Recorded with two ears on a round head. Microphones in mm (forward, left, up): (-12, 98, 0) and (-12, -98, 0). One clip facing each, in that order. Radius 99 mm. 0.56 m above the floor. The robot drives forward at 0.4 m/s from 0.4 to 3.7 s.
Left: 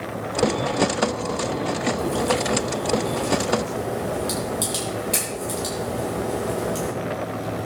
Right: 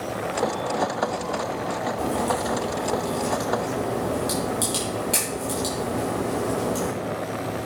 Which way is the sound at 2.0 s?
5° right (ahead or behind).